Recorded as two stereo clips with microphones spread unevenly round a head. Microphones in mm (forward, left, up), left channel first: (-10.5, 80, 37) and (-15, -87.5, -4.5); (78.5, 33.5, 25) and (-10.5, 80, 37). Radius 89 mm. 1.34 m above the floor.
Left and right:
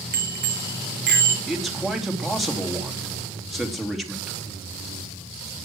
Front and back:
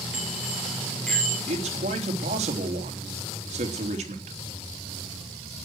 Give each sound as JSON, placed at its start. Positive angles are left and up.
{"t": 0.1, "sound": "a bicycle bell", "azimuth_deg": -120, "distance_m": 3.5}
{"t": 1.5, "sound": "a man speaking", "azimuth_deg": 180, "distance_m": 3.0}